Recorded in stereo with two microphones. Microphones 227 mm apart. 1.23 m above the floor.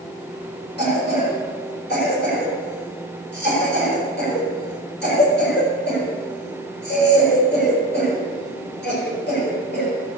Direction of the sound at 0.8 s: 50° left (ahead or behind).